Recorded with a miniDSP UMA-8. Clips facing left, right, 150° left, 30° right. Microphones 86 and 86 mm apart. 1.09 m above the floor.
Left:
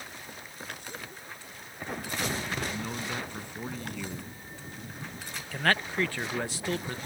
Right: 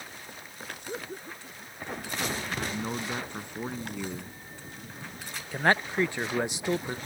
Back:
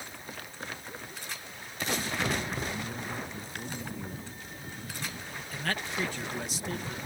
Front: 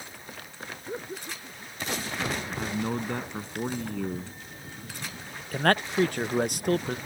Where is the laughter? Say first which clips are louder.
Right 5 dB, front 6 dB; 50° right.